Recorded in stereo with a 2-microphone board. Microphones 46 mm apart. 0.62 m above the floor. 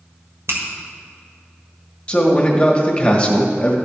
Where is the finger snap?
70° right (ahead or behind), 1.6 m.